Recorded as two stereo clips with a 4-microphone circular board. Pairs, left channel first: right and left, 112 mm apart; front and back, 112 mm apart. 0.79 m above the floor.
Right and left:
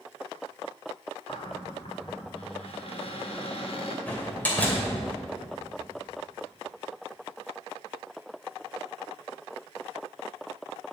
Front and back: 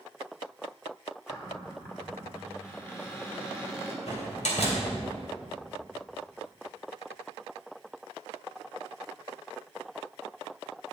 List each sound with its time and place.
1.3 s a cupboard door: 65° right, 1.9 m
4.1 s a door slam: 15° right, 2.5 m